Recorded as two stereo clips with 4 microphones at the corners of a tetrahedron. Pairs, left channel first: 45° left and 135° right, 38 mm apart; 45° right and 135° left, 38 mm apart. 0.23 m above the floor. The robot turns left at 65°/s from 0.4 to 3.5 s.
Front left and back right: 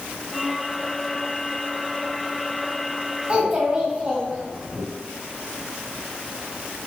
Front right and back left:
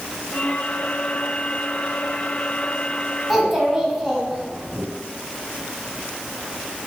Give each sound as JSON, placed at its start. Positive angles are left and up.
{"t": 3.3, "sound": "a child speaking", "azimuth_deg": -130, "distance_m": 0.8}